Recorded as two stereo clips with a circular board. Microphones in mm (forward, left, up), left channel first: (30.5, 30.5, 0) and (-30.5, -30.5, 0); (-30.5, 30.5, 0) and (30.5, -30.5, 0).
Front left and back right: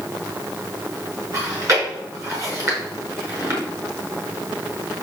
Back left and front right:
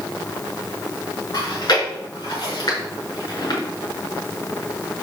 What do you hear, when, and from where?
1.3 s chewing: 175° left, 5.5 m